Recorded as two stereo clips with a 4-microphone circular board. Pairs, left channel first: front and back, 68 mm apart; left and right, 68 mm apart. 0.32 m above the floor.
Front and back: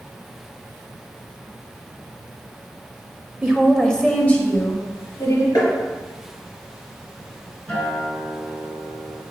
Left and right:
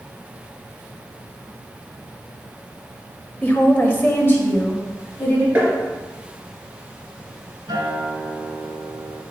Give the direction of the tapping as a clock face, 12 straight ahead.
1 o'clock.